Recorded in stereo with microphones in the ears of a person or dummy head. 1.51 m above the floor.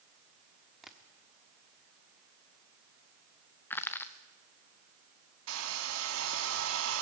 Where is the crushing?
10° left (ahead or behind), 1.0 m.